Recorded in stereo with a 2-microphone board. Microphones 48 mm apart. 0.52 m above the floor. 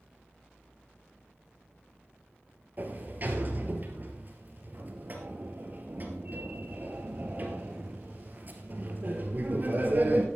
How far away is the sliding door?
About 2.0 m.